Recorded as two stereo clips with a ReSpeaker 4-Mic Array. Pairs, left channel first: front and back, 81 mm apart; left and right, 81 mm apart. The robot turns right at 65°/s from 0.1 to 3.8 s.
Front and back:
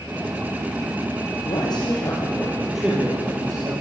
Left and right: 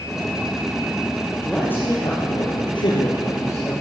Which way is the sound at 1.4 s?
5° left.